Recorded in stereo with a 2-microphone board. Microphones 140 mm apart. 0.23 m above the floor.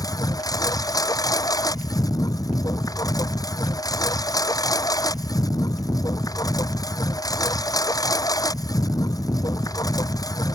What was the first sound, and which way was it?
A lawn mower, 30° left (ahead or behind).